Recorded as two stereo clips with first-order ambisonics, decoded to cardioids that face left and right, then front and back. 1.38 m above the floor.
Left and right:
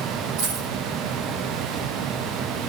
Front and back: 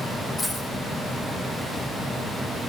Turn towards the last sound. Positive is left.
turn(degrees=-75)